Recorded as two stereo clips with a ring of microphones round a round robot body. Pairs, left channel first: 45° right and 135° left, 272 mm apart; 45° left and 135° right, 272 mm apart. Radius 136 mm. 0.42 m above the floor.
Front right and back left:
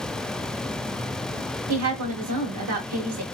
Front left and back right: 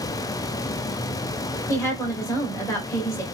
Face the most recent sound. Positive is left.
turn(degrees=125)